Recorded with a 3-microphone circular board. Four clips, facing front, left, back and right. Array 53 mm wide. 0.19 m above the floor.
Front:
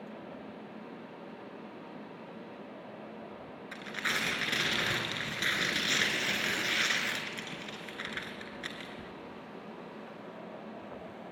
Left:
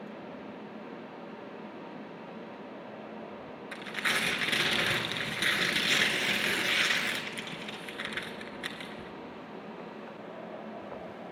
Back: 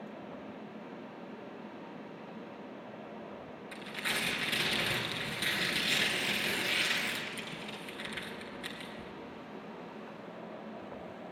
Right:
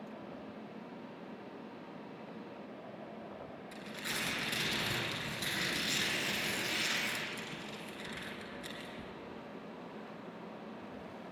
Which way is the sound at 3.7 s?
65° left.